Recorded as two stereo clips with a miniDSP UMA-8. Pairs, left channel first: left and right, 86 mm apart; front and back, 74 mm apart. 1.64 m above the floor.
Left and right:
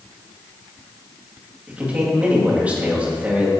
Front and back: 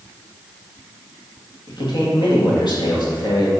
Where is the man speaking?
15° right, 2 m.